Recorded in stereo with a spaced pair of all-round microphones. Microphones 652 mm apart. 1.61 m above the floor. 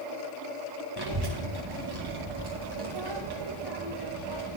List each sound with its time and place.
1.0 s a child speaking: 35° right (ahead or behind), 1.0 m